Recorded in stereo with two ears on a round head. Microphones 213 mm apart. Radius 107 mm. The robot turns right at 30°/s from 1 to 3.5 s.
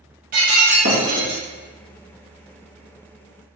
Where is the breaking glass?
35° right (ahead or behind), 1.4 m; by 1.4 s 45° right (ahead or behind), 1.4 m.